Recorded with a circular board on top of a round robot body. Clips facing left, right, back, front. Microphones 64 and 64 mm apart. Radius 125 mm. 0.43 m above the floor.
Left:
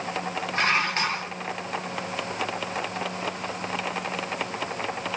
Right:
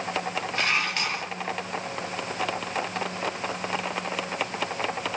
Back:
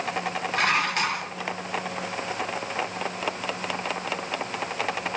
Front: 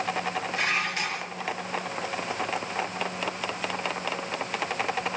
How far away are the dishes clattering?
About 3.5 m.